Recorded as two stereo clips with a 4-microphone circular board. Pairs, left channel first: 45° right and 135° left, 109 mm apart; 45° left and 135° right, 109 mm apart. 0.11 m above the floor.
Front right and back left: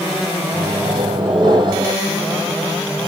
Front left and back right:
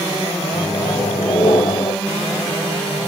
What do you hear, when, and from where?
0.5 s a microwave: 95° left, 2 m